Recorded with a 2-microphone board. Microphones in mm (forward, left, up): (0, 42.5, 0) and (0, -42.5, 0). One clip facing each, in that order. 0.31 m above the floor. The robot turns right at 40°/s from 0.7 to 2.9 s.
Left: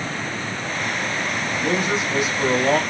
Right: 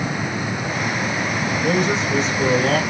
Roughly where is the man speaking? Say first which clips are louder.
Right 2 dB; ahead.